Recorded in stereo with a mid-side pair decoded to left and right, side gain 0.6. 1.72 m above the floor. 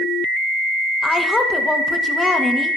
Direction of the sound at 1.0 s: 15° left.